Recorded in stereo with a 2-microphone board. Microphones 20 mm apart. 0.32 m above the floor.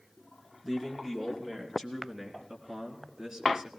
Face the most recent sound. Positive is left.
turn(degrees=-30)  # may be behind; listen again after turning